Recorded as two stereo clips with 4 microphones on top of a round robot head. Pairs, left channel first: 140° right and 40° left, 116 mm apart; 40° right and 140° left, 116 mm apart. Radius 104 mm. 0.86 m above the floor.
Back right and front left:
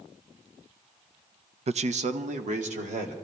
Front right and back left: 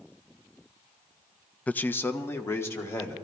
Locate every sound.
1.7 s a man speaking: 40° left, 0.5 m; by 3.1 s 30° left, 2.5 m